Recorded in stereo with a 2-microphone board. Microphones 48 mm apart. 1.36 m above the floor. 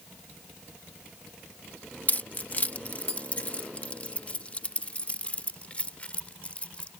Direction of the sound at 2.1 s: 40° left (ahead or behind).